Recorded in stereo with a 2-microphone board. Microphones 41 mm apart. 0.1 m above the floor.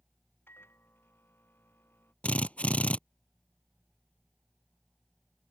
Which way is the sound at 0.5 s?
75° left (ahead or behind).